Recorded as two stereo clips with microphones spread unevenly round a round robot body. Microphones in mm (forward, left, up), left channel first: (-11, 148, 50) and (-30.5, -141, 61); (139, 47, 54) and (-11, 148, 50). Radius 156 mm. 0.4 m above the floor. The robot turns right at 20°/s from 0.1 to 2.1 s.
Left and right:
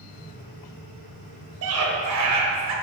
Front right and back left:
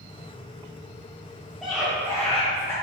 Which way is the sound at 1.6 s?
125° right.